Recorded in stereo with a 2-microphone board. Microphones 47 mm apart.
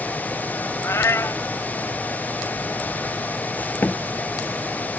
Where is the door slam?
45° left (ahead or behind).